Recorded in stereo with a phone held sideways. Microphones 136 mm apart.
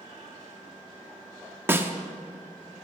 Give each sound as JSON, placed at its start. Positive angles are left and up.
{"t": 1.7, "sound": "a snare drum", "side_deg": -15, "distance_m": 0.9}